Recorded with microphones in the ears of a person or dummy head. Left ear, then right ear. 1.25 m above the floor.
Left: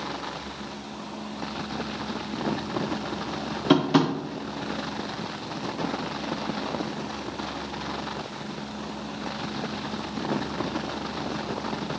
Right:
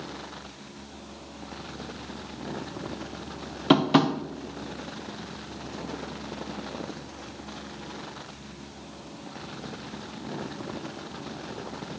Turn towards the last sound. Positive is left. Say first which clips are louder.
# right 1 dB
turn(degrees=-15)  # may be behind; listen again after turning